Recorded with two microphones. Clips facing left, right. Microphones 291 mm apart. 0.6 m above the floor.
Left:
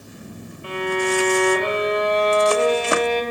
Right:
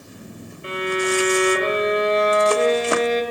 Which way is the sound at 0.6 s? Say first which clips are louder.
Even; 20° right (ahead or behind).